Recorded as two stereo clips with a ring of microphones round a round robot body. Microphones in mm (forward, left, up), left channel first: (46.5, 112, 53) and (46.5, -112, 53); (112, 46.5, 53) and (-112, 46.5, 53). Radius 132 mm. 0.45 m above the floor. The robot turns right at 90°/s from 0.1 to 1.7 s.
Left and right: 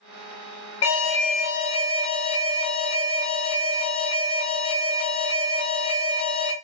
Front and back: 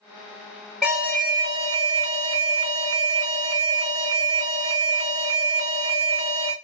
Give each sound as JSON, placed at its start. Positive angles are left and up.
{"t": 0.8, "sound": "an alarm", "azimuth_deg": 95, "distance_m": 1.7}